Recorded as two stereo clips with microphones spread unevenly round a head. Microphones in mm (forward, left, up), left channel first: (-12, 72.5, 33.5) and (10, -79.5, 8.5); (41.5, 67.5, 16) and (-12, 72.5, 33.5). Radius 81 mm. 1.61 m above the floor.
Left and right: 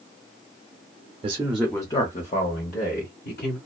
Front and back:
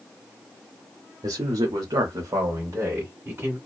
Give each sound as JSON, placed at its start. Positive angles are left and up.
{"t": 1.2, "sound": "a man speaking", "azimuth_deg": -140, "distance_m": 0.6}